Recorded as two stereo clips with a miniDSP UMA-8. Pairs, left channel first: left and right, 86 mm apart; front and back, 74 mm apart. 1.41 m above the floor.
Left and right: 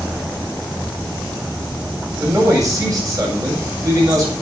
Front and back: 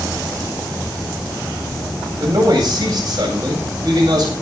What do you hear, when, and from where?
2.2 s a man speaking: 140° right, 8 m